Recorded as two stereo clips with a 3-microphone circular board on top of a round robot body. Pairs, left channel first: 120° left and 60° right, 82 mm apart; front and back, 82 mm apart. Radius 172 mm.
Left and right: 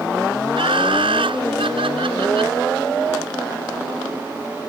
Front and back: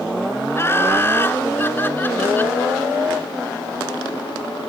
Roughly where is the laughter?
Ahead right.